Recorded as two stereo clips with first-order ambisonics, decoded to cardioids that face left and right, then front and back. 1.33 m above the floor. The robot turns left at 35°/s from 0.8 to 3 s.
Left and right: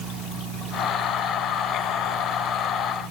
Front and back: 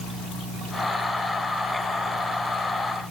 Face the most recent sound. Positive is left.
No sound to turn to.